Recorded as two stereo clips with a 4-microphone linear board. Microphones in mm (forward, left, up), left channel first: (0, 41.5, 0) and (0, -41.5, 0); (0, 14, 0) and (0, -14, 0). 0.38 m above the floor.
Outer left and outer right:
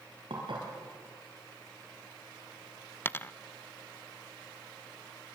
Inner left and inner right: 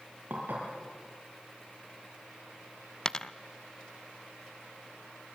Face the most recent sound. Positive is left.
turn(degrees=25)  # may be behind; listen again after turning